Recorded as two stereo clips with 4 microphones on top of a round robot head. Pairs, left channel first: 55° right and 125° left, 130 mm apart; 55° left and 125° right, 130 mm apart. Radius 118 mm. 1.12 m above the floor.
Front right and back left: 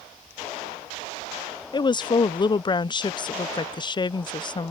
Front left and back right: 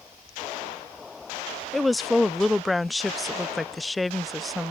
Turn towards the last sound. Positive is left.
turn(degrees=-35)